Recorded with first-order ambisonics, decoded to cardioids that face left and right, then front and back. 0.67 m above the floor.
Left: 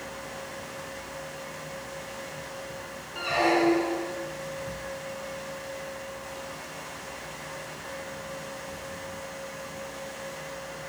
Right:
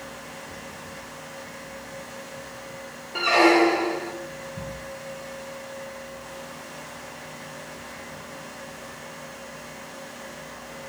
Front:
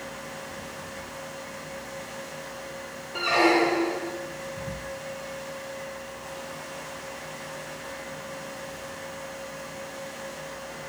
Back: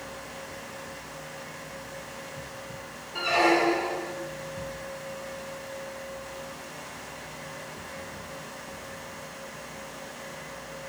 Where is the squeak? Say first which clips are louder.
Right 6 dB, front 1 dB; 75° right, 0.9 m.